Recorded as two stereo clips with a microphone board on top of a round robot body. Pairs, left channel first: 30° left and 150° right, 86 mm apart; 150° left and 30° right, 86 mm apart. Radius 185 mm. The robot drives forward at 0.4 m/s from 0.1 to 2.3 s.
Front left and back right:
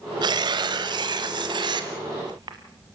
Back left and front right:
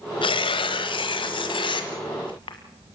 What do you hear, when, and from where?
0.2 s tearing paper: 175° left, 1.0 m